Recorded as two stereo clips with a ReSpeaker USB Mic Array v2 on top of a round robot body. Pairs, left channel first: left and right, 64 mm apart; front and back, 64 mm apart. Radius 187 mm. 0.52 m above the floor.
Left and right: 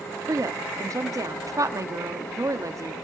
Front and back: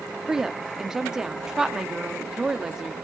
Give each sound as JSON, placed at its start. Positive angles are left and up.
{"t": 0.3, "sound": "a woman speaking", "azimuth_deg": -100, "distance_m": 1.4}